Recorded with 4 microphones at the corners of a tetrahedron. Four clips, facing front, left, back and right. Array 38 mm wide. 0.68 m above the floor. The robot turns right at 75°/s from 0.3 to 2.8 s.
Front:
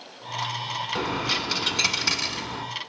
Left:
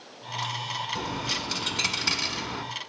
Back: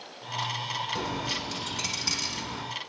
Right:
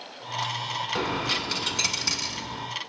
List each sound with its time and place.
0.9 s a dropped coin: 50° right, 0.9 m; by 2.6 s 75° left, 0.9 m